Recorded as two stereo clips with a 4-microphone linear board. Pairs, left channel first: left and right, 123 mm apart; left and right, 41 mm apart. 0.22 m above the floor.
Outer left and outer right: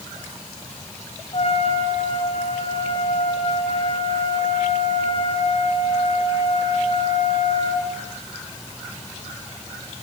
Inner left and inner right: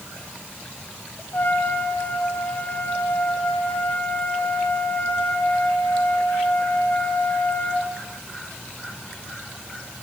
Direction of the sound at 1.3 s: 50° left (ahead or behind).